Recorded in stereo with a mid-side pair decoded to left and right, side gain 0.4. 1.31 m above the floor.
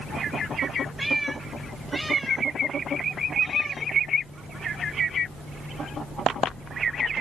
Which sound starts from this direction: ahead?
A cat meowing, at 1.0 s.